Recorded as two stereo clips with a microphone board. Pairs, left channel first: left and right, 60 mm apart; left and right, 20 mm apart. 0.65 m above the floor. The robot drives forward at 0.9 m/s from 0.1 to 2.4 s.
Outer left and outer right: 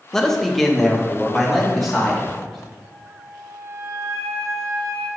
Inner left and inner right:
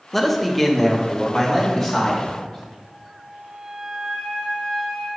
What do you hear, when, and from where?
0.1 s a man speaking: 10° left (ahead or behind), 0.7 m; by 2.7 s centre (ahead or behind), 2.5 m
2.8 s a flute: 60° right (ahead or behind), 2 m